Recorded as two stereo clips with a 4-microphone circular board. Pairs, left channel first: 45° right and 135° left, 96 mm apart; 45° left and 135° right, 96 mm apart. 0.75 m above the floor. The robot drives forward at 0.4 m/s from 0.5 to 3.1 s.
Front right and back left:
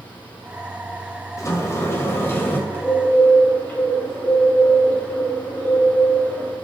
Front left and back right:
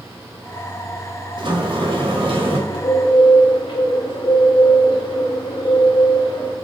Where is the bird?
20° left, 4 m; by 6.5 s 25° left, 4 m.